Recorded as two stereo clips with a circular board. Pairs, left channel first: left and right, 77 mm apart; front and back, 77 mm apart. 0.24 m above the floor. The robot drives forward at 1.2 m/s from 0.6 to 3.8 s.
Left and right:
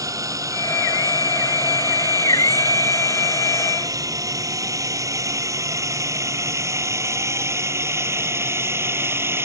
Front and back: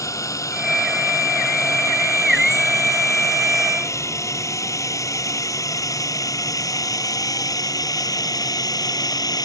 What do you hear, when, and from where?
0.0 s a drone: 45° right; by 9.4 s 30° right